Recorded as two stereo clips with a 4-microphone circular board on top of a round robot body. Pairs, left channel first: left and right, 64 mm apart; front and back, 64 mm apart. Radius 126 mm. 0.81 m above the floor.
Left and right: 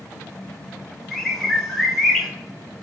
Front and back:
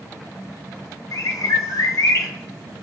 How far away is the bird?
About 0.7 m.